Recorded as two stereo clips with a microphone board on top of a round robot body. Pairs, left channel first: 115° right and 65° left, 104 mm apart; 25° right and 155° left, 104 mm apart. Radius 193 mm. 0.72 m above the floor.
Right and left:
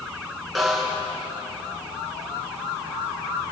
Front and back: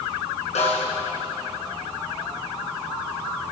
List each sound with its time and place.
0.6 s a snare drum: 25° right, 4.5 m